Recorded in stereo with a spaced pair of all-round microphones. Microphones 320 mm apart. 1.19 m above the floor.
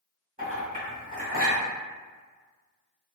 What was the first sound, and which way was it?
A clink, 25° right (ahead or behind).